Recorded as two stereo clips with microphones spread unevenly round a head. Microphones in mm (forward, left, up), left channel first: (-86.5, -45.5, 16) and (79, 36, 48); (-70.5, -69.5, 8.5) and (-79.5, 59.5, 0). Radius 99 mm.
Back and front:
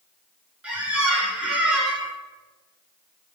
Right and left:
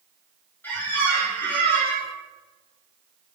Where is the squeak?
30° right, 0.6 m.